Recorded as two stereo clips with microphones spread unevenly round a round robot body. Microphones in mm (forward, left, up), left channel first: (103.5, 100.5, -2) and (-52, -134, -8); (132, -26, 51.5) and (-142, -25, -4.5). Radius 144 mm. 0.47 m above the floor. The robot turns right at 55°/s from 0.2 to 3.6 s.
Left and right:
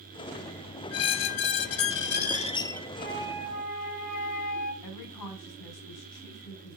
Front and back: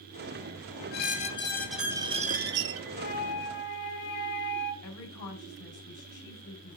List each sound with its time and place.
0.9 s a squeak: 35° left, 0.6 m; by 2.9 s 140° left, 0.6 m
3.0 s a flute: 35° right, 3.5 m; by 4.7 s straight ahead, 3.5 m
4.8 s a woman speaking: 45° left, 3.5 m